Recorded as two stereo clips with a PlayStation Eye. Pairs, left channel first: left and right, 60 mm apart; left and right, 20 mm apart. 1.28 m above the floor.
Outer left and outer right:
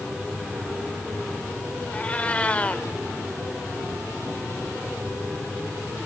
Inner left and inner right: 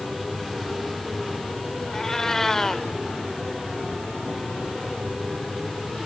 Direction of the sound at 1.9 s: 25° left (ahead or behind).